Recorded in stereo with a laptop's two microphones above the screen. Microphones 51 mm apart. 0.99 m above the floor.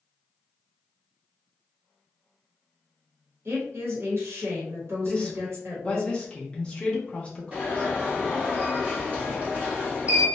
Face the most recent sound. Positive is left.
turn(degrees=-30)  # may be behind; listen again after turning